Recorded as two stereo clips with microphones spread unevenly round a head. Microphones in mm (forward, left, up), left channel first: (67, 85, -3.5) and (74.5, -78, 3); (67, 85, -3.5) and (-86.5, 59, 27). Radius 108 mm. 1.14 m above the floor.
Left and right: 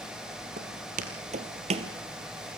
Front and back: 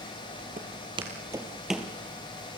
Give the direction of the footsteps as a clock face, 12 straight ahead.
4 o'clock.